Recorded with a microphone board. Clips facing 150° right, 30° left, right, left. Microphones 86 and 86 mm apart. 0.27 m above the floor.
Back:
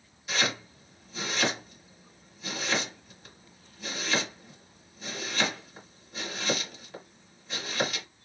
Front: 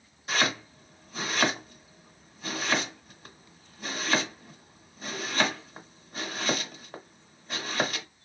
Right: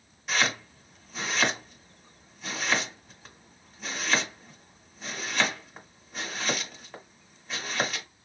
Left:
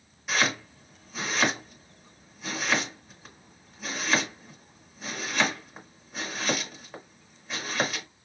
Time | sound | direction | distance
0.3 | chopping | 5° left | 1.7 m